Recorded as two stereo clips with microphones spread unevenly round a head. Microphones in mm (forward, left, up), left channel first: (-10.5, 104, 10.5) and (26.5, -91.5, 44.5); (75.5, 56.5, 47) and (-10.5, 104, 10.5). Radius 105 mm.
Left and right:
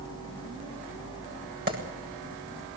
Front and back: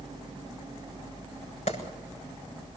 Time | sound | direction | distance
1.7 | a clap | 30° right | 8 m